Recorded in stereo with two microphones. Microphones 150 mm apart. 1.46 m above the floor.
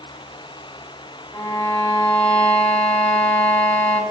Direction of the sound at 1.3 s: 10° left (ahead or behind).